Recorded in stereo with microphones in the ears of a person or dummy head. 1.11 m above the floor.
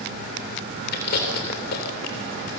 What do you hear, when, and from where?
0.9 s chewing: 55° left (ahead or behind), 3.5 m